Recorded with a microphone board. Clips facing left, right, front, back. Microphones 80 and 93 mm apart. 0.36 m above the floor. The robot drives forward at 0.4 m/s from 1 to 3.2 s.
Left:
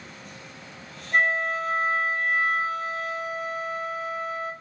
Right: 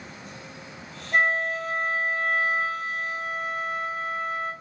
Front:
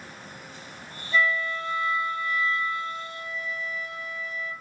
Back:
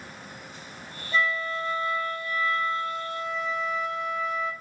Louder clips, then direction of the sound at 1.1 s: Even, front 2 dB; 170° right.